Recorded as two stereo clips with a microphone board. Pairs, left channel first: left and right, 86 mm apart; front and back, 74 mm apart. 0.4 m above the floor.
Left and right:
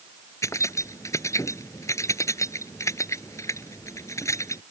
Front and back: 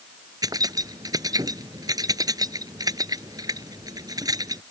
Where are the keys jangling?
145° left.